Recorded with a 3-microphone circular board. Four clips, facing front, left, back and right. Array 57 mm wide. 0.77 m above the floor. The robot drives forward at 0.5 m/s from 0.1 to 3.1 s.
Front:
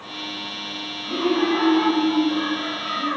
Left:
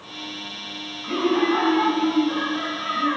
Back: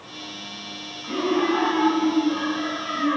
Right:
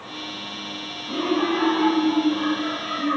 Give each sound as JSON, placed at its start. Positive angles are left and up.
{"t": 1.0, "sound": "laughter", "azimuth_deg": 100, "distance_m": 4.0}